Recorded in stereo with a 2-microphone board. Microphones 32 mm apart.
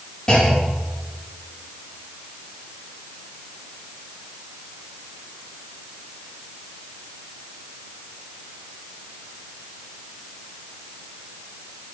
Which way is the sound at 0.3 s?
20° left (ahead or behind).